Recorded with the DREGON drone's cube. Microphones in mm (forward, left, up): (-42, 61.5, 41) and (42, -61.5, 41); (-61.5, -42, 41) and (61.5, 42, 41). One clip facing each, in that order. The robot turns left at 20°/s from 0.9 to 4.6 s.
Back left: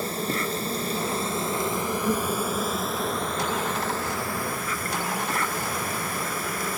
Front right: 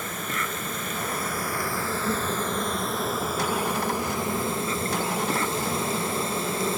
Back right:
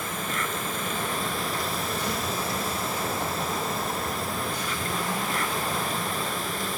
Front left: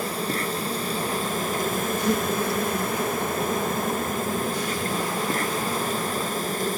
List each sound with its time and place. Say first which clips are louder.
0.0 s an insect: back left 5 dB, front left 4 dB; 75° left; by 6.8 s straight ahead